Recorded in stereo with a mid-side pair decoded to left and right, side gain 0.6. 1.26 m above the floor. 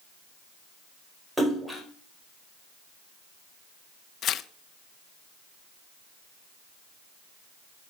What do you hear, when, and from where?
1.4 s a splash: 10° right, 4.5 m
4.2 s tearing paper: 50° left, 1.0 m